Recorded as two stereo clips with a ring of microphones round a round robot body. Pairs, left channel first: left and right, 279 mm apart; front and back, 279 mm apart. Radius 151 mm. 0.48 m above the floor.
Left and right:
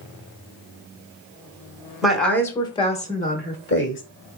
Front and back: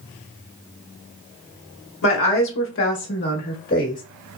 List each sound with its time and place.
2.0 s a woman speaking: 5° right, 1.1 m; by 4.0 s 55° left, 1.4 m